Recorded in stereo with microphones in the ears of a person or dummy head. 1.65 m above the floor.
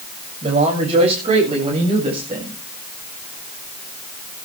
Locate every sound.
0.4 s a man speaking: 25° right (ahead or behind), 7 m